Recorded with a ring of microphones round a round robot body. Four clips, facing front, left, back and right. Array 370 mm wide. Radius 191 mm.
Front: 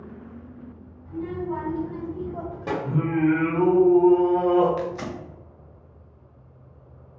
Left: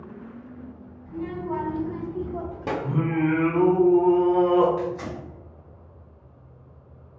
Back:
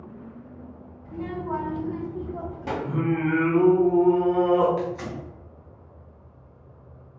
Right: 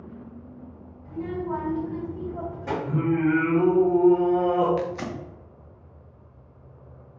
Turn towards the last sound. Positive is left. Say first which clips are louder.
# even, even
turn(degrees=-65)